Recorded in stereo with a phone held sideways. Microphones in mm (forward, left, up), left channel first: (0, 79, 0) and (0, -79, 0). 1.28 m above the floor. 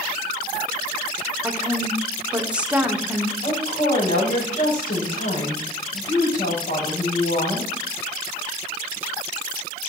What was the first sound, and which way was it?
A woman speaking, 5° right (ahead or behind).